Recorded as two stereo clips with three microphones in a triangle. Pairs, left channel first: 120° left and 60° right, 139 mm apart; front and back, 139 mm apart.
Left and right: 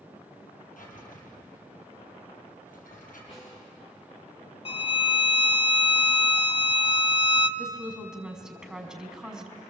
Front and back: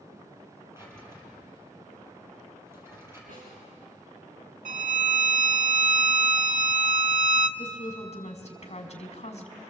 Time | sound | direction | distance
0.8 | a drawer | 110° left | 5.5 m
3.3 | a snare drum | 175° left | 10 m
4.7 | a violin | 170° left | 0.7 m
7.6 | a woman speaking | 25° left | 3 m